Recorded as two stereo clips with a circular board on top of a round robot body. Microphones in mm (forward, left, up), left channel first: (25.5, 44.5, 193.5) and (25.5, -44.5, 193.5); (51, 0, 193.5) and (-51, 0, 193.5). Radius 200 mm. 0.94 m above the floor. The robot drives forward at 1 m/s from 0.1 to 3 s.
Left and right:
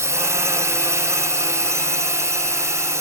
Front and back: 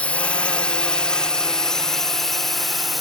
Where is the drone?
70° right; by 3.0 s 90° right.